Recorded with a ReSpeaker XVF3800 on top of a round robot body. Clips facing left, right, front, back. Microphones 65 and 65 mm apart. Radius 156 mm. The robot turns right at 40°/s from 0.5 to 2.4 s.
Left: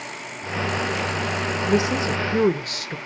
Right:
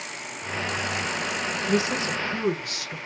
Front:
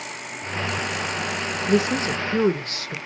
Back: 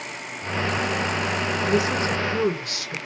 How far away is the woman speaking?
About 0.9 m.